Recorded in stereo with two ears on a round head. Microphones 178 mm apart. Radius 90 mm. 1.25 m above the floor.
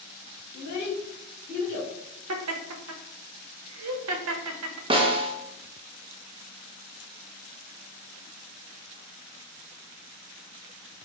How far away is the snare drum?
About 0.6 m.